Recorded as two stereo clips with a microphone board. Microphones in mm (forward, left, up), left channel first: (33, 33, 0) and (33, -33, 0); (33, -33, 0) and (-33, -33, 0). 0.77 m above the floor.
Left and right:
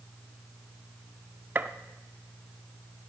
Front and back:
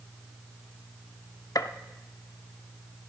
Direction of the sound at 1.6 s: 30° right.